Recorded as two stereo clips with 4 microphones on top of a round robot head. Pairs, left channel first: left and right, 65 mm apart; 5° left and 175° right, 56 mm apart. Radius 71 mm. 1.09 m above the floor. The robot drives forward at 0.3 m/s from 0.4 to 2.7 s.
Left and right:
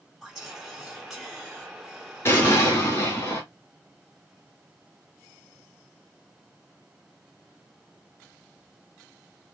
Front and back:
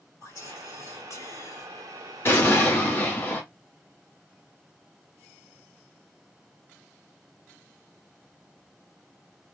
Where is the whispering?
Straight ahead, 2.5 m; by 1.7 s 5° left, 1.9 m.